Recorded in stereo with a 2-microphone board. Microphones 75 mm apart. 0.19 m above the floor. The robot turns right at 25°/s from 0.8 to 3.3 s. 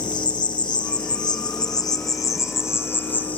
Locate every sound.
0.0 s an insect: 100° left, 1.0 m; by 3.4 s 160° left, 1.0 m